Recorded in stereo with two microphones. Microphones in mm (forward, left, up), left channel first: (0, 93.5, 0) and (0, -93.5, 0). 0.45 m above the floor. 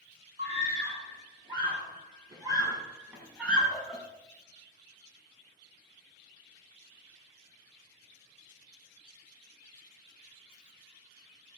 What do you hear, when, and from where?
0.4 s a scream: 35° right (ahead or behind), 4 m; by 4.0 s centre (ahead or behind), 3.5 m